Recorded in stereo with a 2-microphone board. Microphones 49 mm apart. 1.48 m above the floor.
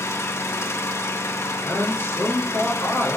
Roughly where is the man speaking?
Left.